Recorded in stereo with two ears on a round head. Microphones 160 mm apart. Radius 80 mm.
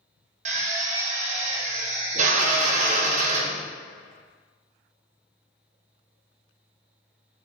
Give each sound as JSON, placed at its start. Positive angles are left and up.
{"t": 0.5, "sound": "a drill", "side_deg": -40, "distance_m": 0.7}